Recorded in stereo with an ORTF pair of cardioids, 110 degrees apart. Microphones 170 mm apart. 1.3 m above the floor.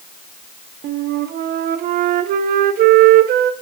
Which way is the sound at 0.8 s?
60° right.